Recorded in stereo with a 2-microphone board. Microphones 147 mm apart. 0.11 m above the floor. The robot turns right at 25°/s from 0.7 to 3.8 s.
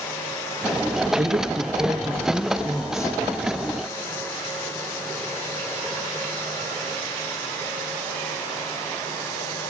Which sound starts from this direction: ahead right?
A woman speaking, at 1.2 s.